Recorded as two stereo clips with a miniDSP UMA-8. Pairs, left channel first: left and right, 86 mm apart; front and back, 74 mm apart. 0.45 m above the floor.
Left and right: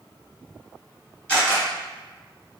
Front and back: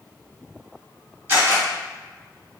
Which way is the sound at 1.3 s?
150° left.